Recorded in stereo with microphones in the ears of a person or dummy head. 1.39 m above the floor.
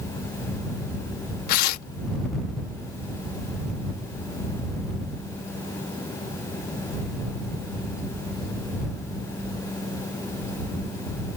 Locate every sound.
1.5 s tearing paper: 55° left (ahead or behind)